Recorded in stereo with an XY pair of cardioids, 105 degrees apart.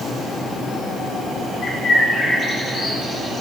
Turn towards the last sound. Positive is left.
turn(degrees=45)